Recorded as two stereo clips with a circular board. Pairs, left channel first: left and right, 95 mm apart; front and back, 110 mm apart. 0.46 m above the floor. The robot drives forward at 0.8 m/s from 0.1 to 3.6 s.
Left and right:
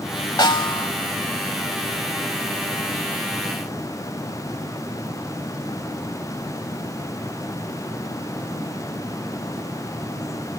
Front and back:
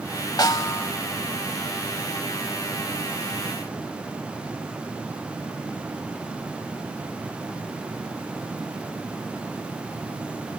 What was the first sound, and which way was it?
A snare drum, 50° left.